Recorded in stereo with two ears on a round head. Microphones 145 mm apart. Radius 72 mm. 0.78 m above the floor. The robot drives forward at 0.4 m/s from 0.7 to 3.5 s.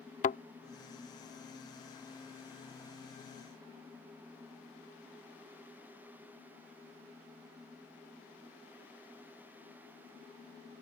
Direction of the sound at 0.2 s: 50° left (ahead or behind).